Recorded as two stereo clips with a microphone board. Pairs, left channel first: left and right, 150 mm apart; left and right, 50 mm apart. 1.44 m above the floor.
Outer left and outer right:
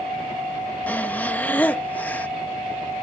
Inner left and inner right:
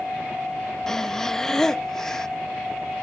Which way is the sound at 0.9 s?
10° left (ahead or behind).